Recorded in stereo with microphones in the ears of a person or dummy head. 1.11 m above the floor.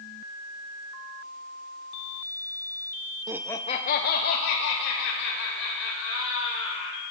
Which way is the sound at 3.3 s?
20° right (ahead or behind).